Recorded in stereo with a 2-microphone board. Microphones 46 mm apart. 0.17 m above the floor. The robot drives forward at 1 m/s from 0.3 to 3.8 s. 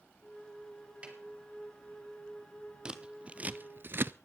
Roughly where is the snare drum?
Right.